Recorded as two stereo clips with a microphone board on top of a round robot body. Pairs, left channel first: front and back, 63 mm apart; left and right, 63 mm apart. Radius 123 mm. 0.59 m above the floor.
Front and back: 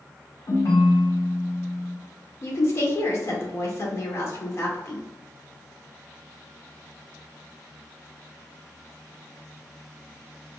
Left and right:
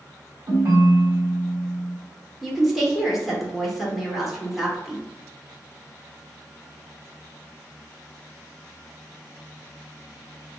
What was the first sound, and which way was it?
A ringtone, 35° right.